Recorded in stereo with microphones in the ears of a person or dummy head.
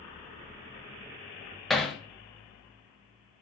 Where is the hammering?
Centre (ahead or behind), 0.6 m.